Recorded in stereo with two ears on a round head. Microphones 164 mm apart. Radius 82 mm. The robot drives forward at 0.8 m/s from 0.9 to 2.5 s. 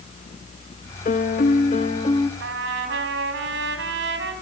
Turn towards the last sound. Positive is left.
turn(degrees=-70)  # may be behind; listen again after turning